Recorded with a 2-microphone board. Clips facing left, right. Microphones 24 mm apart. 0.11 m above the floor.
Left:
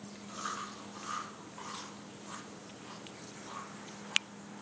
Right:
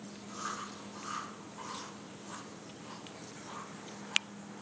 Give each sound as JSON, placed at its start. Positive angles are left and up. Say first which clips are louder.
{"t": 0.3, "sound": "chewing", "louder": "left 1 dB", "side_deg": 10, "distance_m": 2.0}